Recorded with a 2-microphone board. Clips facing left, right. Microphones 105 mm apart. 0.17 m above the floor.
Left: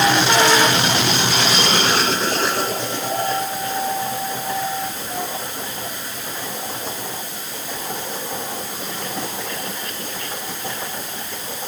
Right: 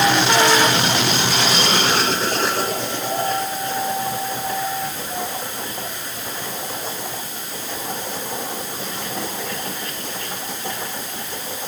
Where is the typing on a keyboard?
No typing on a keyboard in this recording.